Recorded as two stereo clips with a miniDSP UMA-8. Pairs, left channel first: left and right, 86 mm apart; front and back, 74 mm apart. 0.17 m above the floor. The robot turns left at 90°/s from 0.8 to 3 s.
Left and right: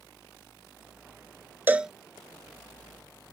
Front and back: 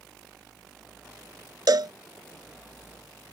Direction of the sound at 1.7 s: 155° right.